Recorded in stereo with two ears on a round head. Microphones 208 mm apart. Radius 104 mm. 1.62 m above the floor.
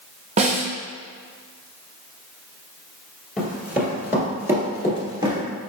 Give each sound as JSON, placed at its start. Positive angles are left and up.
{"t": 0.4, "sound": "a snare drum", "side_deg": -30, "distance_m": 0.7}
{"t": 3.4, "sound": "running footsteps", "side_deg": -5, "distance_m": 1.8}